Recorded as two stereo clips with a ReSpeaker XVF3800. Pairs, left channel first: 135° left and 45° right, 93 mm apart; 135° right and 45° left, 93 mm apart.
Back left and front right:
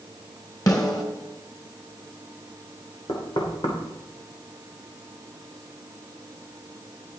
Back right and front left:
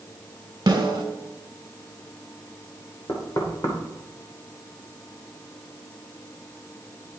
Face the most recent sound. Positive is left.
turn(degrees=175)